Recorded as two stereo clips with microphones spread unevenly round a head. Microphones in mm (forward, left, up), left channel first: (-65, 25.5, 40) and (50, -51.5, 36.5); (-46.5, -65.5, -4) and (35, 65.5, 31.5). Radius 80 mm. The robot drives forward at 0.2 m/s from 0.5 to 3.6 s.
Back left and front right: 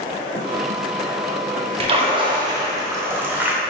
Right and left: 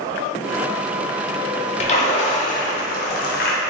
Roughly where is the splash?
Right.